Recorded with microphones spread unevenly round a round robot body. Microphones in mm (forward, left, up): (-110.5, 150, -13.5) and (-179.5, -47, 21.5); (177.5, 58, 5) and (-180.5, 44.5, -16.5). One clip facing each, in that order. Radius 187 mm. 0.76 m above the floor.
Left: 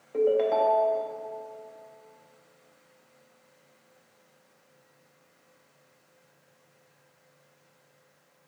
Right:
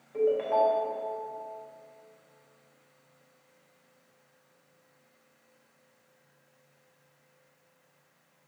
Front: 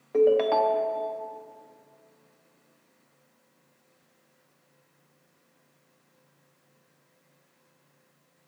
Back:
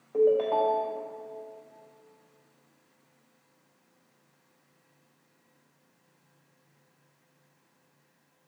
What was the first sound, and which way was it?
A ringtone, 35° left.